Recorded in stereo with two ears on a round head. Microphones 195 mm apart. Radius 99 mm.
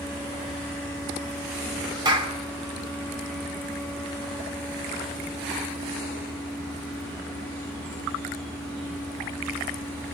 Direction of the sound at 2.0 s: 20° right (ahead or behind).